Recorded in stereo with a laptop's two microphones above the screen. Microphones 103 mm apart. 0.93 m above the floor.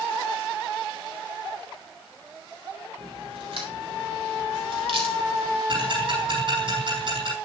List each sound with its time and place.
3.0 s a crack: 65° right (ahead or behind), 3.5 m
5.7 s ticking: 60° right (ahead or behind), 6 m